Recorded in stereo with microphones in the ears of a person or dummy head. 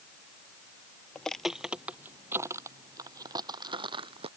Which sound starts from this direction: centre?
Footsteps, at 1.1 s.